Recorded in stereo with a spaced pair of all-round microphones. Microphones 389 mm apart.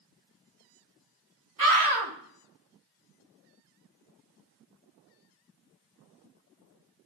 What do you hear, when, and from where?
1.6 s a scream: 55° right (ahead or behind), 1.9 m